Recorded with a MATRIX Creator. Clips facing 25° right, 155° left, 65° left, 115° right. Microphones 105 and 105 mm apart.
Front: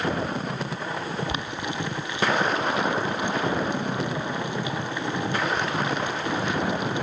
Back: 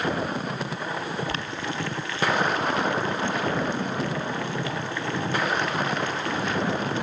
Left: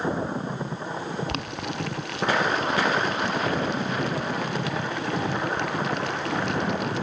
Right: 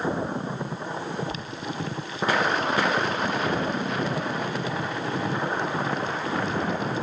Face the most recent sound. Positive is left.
turn(degrees=50)